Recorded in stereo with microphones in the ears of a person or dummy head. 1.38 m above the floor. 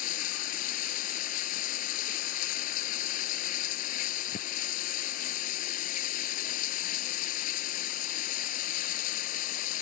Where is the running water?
50° left (ahead or behind).